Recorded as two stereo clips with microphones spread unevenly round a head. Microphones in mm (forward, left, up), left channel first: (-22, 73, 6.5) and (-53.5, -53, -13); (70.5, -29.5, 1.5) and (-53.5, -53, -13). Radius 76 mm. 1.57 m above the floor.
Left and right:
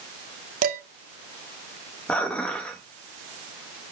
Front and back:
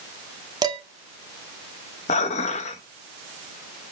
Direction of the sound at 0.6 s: 110° right.